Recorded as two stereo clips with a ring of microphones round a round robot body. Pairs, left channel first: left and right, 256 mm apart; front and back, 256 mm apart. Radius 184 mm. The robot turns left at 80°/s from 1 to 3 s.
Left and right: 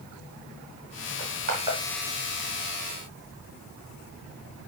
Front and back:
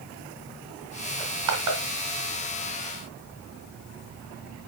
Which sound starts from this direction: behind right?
Crushing, at 1.2 s.